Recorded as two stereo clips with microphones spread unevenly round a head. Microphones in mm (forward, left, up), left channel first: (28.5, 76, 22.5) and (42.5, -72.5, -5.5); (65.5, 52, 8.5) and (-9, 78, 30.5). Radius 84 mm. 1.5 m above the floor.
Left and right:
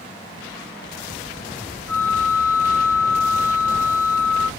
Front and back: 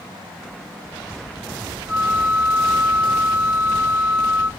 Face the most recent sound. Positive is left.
turn(degrees=-170)